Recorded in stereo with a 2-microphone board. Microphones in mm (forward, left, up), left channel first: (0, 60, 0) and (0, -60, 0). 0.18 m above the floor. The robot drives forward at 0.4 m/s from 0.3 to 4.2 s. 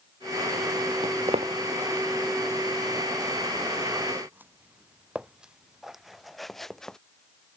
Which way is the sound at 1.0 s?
65° right (ahead or behind).